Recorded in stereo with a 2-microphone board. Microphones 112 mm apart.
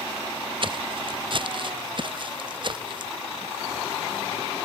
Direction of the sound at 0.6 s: 50° right (ahead or behind).